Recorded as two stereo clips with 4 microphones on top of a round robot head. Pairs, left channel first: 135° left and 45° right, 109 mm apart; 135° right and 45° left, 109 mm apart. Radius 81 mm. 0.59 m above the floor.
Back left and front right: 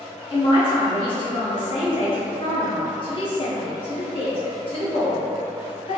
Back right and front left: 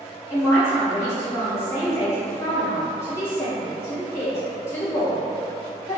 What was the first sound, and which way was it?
A man speaking, 160° left.